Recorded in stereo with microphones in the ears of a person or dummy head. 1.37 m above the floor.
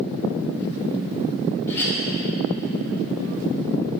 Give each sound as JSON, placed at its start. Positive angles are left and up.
{"t": 1.7, "sound": "a clink", "side_deg": 10, "distance_m": 4.5}